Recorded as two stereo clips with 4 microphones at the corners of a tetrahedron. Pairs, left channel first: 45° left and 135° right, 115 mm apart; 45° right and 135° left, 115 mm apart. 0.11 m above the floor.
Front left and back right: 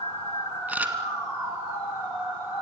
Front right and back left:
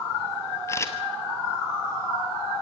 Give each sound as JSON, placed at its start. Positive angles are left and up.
{"t": 0.7, "sound": "a camera shutter", "azimuth_deg": -75, "distance_m": 1.7}